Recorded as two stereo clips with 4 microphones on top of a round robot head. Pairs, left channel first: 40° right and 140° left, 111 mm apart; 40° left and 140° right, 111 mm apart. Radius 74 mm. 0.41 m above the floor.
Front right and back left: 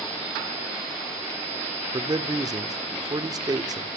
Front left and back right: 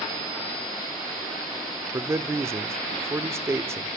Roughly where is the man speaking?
Behind.